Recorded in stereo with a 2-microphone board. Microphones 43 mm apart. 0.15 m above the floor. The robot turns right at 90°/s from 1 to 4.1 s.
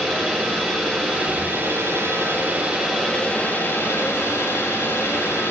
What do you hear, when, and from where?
0.0 s an engine running: 170° right, 8.5 m; by 5.5 s 110° left, 8.5 m